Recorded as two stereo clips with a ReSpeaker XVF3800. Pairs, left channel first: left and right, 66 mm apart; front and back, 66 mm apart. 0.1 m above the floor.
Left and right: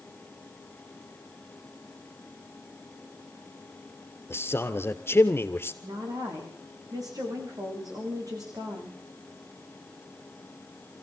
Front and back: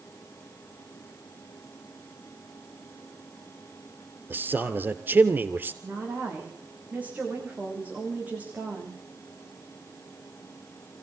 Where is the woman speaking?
115° right, 9 m.